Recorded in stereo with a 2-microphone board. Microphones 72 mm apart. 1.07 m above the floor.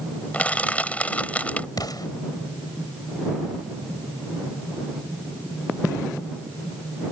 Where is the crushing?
20° left (ahead or behind).